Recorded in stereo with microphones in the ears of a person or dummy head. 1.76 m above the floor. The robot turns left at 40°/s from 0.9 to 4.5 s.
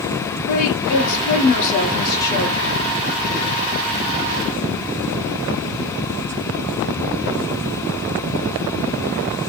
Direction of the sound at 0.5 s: 75° left.